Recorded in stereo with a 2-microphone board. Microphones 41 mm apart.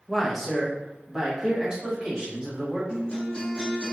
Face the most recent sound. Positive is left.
turn(degrees=30)  # may be behind; listen again after turning